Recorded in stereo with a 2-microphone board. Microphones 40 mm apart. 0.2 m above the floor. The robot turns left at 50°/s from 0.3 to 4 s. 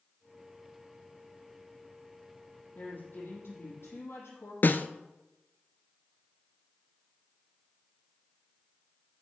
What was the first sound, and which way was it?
A woman speaking, 145° left.